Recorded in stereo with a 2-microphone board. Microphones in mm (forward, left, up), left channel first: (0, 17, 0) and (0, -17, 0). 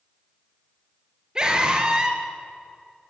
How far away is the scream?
About 3 m.